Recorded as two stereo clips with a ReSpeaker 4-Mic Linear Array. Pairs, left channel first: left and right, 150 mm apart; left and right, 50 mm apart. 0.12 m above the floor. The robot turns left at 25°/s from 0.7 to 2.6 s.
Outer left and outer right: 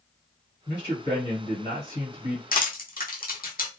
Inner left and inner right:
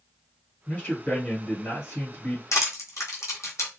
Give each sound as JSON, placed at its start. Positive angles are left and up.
{"t": 0.7, "sound": "a man speaking", "azimuth_deg": 145, "distance_m": 1.8}
{"t": 2.5, "sound": "crushing", "side_deg": 75, "distance_m": 1.1}